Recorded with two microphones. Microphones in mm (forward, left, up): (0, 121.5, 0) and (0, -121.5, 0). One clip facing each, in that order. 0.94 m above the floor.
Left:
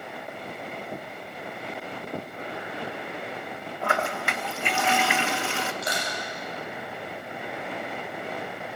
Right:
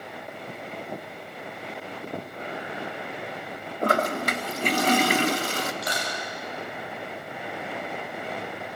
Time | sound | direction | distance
3.8 | a toilet flushing | 40° right (ahead or behind) | 0.9 m
5.8 | crushing | 25° left (ahead or behind) | 10 m